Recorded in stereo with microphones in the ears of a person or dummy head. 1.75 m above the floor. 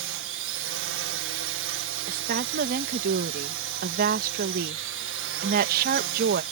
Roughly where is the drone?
Right.